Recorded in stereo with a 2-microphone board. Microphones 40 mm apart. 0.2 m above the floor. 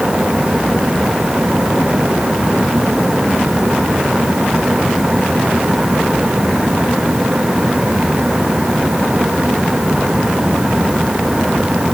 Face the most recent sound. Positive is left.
No sound to turn to.